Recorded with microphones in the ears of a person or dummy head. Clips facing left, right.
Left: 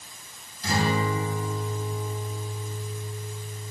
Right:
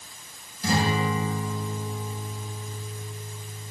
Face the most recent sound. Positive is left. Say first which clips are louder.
# right 1 dB
turn(degrees=-75)  # may be behind; listen again after turning